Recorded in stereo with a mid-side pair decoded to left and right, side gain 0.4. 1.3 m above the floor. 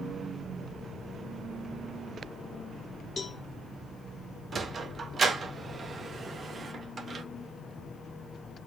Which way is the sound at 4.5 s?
45° right.